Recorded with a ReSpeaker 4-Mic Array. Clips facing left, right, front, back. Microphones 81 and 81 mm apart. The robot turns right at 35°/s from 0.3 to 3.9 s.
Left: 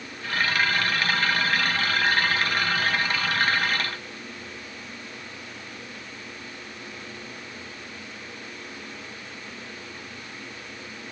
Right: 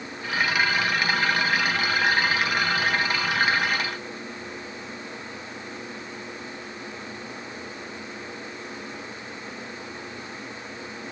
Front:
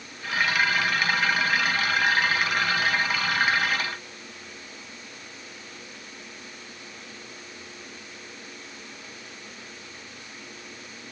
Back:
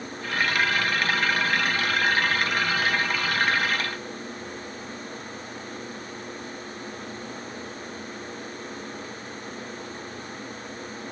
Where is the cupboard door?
I don't hear a cupboard door.